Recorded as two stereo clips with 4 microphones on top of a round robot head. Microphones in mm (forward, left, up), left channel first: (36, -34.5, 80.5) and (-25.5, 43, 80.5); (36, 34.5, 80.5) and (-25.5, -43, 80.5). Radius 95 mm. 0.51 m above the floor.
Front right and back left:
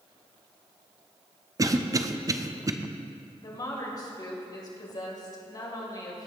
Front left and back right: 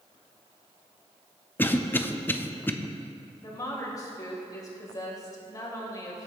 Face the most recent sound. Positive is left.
turn(degrees=-5)